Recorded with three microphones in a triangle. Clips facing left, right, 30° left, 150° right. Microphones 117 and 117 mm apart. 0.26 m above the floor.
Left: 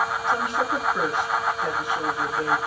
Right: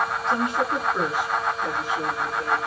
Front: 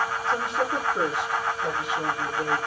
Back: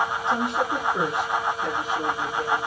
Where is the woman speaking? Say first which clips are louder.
Right 2 dB, back 1 dB; 145° right, 2.5 m; by 2.6 s 140° left, 2 m.